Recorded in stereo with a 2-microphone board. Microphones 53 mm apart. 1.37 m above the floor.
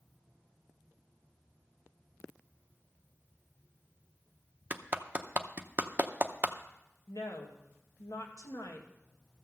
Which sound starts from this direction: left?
A woman speaking, at 7.1 s.